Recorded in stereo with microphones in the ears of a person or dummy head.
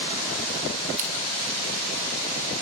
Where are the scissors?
45° right (ahead or behind), 2.5 m.